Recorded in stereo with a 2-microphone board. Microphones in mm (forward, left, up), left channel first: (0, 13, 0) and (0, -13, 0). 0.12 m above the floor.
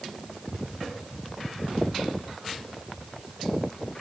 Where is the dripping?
I don't hear dripping.